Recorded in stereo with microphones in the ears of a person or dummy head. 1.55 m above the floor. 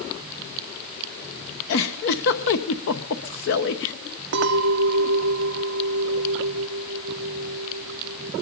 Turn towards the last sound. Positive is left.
turn(degrees=-50)  # may be behind; listen again after turning